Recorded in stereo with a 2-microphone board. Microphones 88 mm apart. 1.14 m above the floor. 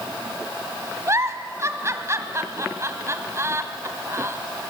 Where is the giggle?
30° right (ahead or behind), 1.7 m.